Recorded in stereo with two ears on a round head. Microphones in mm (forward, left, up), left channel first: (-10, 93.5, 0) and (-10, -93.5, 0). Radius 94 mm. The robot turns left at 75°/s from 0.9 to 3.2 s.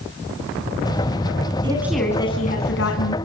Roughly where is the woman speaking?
Behind right.